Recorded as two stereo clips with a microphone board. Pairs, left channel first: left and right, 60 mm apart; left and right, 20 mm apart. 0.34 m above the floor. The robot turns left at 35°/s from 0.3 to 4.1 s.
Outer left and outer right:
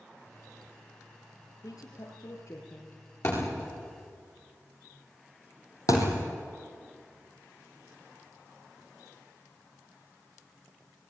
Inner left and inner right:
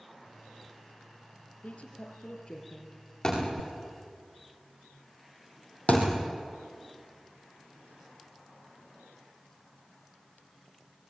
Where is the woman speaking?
90° left, 7 m; by 3.0 s 40° left, 7 m.